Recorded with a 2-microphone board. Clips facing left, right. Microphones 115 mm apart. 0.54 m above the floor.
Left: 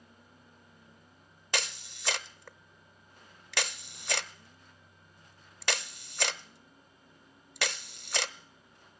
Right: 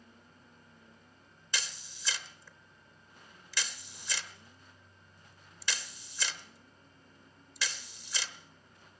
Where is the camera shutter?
65° left (ahead or behind), 0.9 m.